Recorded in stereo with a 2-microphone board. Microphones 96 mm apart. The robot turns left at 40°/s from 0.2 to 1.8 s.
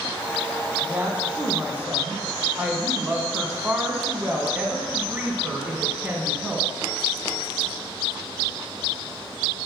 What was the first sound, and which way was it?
A woman speaking, 20° right (ahead or behind).